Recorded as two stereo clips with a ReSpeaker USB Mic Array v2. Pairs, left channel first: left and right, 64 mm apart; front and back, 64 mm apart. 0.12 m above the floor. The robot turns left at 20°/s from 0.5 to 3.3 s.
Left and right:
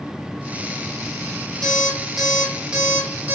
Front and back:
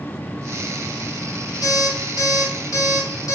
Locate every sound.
1.6 s an alarm clock: 10° left, 3 m; by 3.3 s 25° right, 3 m